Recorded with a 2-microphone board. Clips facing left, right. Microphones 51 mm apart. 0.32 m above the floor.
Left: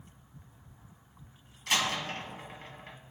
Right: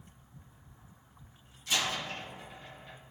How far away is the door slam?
About 2 m.